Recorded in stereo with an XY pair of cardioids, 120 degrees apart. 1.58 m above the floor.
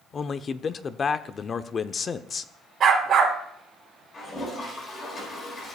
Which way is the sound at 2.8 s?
50° right.